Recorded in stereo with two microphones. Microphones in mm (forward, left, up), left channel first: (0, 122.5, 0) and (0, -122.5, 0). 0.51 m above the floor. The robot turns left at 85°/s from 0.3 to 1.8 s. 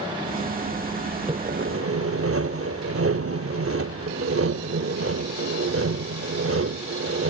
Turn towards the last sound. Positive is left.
turn(degrees=-70)